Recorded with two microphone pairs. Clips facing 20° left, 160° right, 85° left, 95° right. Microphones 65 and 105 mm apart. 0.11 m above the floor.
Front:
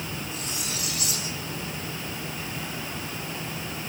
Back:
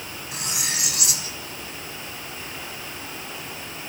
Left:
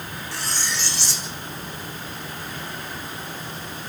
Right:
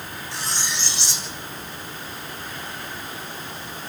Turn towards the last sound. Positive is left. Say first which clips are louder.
# back 2 dB, even
turn(degrees=-170)